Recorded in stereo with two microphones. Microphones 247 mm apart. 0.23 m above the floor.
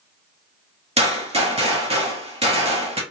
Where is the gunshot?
25° right (ahead or behind), 1.5 m.